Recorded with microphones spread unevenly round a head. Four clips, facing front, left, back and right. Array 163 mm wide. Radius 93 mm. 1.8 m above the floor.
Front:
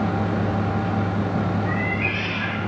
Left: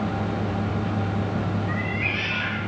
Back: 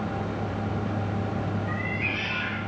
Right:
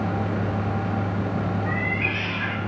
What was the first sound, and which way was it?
A cat meowing, 40° right.